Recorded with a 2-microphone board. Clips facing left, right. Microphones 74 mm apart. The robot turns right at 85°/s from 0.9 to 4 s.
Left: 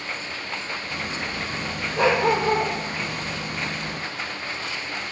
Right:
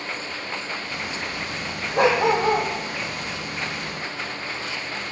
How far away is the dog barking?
About 5 m.